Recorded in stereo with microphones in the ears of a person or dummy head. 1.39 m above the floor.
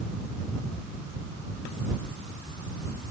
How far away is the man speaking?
I don't hear a man speaking.